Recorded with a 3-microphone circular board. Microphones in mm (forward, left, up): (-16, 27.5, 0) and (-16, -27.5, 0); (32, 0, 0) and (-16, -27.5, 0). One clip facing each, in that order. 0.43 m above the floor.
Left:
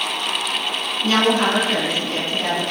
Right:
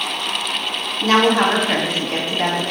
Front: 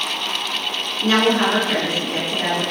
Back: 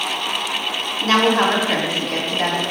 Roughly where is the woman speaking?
Behind right.